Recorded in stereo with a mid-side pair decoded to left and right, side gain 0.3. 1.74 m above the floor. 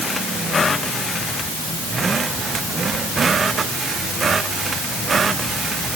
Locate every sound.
Only background noise.